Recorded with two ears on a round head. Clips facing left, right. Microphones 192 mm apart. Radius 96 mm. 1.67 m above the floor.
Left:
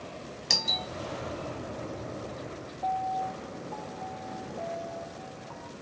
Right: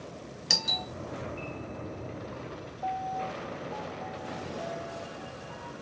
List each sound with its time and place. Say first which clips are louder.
0.5 s a doorbell: left 1 dB; 5° right (ahead or behind), 0.6 m
2.8 s a piano: left 3 dB; 10° right (ahead or behind), 0.7 m